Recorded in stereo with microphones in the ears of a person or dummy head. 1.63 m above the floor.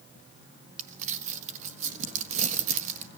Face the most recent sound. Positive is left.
turn(degrees=-45)  # may be behind; listen again after turning